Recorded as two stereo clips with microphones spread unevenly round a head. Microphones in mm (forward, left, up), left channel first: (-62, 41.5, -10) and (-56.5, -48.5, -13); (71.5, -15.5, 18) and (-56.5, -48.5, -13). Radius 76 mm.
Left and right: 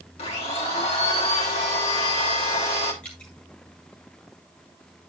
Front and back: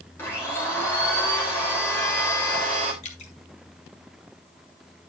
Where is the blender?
90° left, 3 m.